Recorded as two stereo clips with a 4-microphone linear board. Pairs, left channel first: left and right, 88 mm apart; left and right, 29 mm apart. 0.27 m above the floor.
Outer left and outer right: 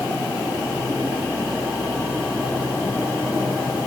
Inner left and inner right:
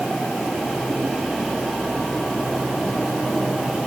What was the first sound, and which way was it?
Only background noise.